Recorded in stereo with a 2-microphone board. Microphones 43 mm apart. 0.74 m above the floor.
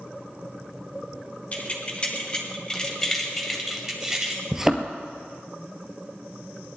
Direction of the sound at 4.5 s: 10° right (ahead or behind).